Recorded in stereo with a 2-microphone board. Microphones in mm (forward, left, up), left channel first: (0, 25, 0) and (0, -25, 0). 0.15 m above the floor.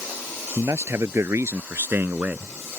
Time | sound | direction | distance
0.6 | a man speaking | 65° right (ahead or behind) | ?